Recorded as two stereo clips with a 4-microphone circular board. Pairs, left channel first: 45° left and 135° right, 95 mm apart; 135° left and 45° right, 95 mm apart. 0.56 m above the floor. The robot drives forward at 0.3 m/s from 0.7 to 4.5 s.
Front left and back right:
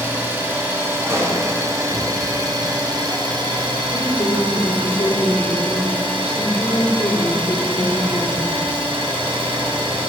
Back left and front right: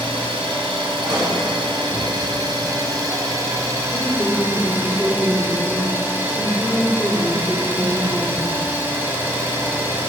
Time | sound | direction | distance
0.0 | an engine running | 70° right | 1.6 m
1.1 | a pop | 80° right | 2 m
3.9 | a woman speaking | 30° left | 1.4 m